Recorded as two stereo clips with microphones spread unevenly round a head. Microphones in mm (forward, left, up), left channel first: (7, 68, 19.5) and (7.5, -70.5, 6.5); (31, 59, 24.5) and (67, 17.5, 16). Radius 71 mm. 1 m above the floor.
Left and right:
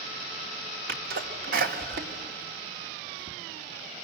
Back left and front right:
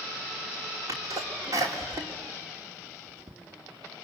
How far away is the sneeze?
About 3 m.